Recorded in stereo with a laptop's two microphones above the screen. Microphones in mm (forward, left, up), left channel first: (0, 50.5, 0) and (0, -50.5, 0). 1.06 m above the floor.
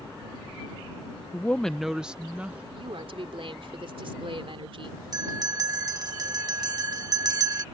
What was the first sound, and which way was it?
A woman speaking, 20° left (ahead or behind).